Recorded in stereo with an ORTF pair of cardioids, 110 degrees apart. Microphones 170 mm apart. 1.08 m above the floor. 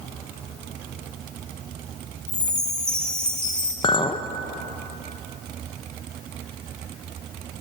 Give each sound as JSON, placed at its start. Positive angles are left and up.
{"t": 2.3, "sound": "a chime", "azimuth_deg": 5, "distance_m": 2.0}
{"t": 3.8, "sound": "a clink", "azimuth_deg": 30, "distance_m": 0.6}